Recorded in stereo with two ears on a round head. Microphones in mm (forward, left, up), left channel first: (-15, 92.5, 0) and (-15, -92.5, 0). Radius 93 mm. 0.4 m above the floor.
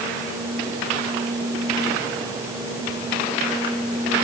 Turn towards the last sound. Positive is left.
No sound to turn to.